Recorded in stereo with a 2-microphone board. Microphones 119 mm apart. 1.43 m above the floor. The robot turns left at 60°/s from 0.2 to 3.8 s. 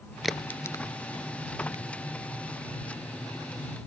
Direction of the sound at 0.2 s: 5° right (ahead or behind).